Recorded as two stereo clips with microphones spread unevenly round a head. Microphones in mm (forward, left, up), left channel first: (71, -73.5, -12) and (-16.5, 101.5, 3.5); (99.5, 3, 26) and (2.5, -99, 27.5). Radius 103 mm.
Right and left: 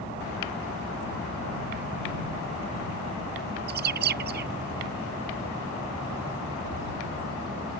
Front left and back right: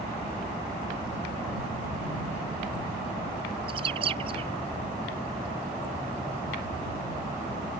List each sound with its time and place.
3.7 s a bird: 160° left